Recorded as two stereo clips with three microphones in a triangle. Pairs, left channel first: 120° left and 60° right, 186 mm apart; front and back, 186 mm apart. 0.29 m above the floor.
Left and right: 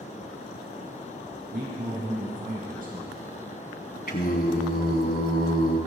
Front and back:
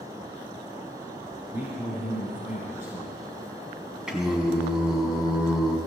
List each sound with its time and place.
1.5 s a man speaking: 100° right, 4.5 m
4.1 s singing: 95° left, 2.5 m